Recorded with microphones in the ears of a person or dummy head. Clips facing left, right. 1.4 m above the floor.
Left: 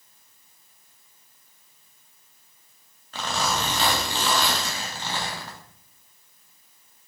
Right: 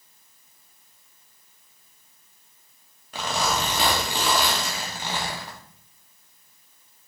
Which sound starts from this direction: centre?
A zipper, at 3.1 s.